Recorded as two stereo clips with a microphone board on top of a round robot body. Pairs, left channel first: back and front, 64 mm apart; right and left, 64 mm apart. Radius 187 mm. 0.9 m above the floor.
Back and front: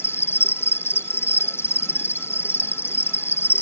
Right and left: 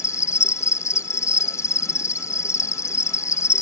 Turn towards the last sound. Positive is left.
turn(degrees=-130)